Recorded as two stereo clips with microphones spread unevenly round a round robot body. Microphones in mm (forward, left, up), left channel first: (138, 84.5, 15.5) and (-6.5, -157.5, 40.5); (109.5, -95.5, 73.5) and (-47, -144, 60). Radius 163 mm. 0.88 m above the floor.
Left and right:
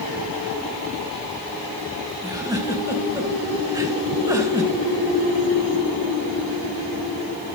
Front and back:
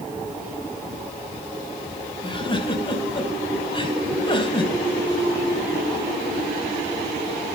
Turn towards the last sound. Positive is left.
turn(degrees=-45)